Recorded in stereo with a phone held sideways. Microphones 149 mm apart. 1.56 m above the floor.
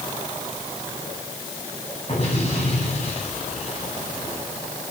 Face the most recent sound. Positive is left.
turn(degrees=45)  # may be behind; listen again after turning